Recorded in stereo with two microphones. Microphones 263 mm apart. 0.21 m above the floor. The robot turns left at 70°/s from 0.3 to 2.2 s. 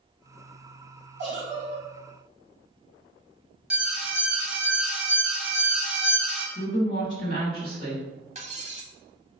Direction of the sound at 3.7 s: 5° right (ahead or behind).